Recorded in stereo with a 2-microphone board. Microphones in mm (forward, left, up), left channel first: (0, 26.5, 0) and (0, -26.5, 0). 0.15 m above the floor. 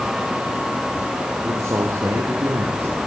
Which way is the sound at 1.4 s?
80° right.